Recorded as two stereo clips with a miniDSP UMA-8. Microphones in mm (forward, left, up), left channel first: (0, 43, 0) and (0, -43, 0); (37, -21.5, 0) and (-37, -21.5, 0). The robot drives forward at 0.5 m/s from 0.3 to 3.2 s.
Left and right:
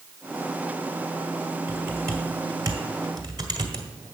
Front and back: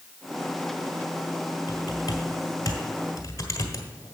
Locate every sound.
1.7 s typing on a keyboard: 30° right, 2 m; by 4.2 s 45° right, 1.6 m